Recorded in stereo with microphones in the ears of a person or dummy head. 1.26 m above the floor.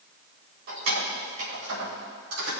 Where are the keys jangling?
65° right (ahead or behind), 3.5 m; by 2.5 s 85° right, 4.5 m.